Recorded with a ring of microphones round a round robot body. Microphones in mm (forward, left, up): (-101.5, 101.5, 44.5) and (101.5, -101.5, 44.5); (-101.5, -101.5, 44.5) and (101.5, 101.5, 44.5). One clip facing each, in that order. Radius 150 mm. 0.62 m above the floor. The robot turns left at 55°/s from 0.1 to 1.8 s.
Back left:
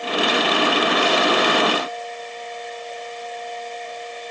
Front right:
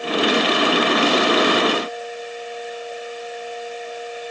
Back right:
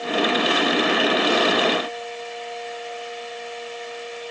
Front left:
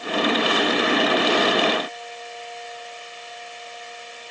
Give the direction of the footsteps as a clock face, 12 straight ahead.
No footsteps in this recording.